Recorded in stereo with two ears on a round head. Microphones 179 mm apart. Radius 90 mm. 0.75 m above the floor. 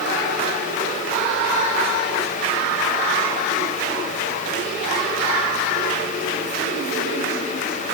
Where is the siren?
No siren in this recording.